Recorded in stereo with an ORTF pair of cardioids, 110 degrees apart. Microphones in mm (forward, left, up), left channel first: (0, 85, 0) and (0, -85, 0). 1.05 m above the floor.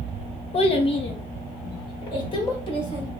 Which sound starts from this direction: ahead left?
A child speaking, at 0.5 s.